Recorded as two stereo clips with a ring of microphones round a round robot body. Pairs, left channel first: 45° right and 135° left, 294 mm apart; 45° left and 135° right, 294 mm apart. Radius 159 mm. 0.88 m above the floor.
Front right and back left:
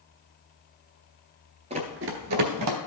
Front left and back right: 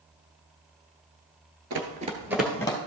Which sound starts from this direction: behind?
Running footsteps, at 1.7 s.